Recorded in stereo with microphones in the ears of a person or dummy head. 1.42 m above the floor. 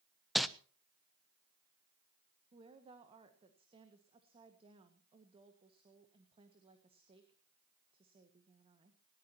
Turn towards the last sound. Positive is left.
turn(degrees=-25)  # may be behind; listen again after turning